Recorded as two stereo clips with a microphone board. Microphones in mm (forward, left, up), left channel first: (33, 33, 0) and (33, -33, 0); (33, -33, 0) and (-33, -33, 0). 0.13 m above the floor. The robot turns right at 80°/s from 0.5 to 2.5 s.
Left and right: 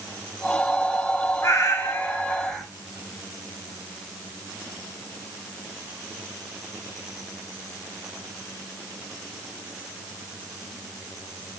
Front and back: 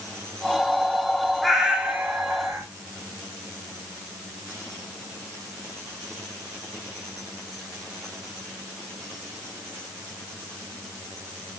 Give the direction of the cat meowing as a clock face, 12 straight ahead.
9 o'clock.